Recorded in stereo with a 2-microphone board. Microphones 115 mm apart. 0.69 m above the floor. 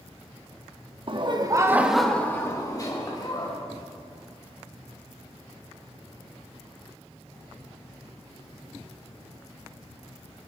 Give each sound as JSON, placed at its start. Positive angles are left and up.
{"t": 1.1, "sound": "laughter", "side_deg": -45, "distance_m": 1.3}